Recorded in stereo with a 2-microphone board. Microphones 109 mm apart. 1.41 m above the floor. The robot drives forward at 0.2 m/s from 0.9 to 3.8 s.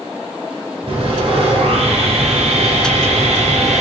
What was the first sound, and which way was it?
Sawing, 55° right (ahead or behind).